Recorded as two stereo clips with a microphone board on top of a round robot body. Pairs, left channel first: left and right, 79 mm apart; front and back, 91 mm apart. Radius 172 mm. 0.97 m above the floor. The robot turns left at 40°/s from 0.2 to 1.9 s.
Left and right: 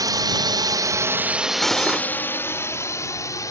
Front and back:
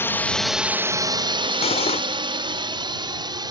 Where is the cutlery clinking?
5° left; by 2.1 s 5° right.